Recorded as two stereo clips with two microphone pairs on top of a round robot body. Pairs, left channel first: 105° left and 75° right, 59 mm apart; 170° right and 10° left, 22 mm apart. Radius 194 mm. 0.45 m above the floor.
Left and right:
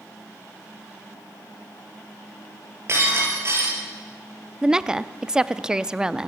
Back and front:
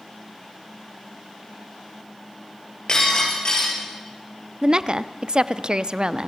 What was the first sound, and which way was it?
Breaking glass, 120° right.